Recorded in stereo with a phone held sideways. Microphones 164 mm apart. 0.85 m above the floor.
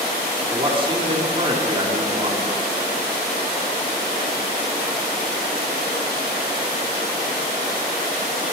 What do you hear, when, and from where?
0.5 s a man speaking: 30° right (ahead or behind), 1.8 m